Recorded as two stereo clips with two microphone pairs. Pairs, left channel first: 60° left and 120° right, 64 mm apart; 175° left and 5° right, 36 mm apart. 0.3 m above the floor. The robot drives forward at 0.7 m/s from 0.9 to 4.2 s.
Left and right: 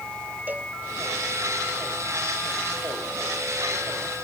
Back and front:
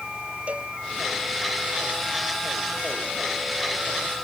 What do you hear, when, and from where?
0.5 s a cowbell: 55° right